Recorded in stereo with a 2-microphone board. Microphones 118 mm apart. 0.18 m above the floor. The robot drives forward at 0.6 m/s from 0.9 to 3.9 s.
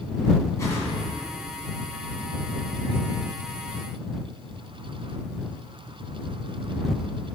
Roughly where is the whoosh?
Left.